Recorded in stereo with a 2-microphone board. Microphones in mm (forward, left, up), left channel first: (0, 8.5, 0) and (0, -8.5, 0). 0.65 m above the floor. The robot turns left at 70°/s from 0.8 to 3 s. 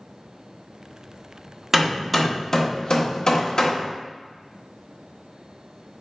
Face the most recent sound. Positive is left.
turn(degrees=45)  # may be behind; listen again after turning